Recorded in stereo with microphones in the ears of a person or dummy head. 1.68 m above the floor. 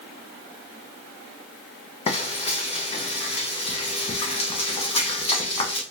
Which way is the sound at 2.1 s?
30° left (ahead or behind).